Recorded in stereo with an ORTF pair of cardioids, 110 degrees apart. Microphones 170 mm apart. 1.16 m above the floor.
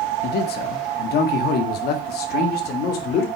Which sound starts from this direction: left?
A man speaking, at 0.2 s.